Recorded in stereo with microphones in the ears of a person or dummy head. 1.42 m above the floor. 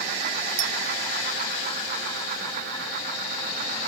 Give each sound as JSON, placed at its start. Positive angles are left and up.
{"t": 0.6, "sound": "a clink", "side_deg": -65, "distance_m": 0.9}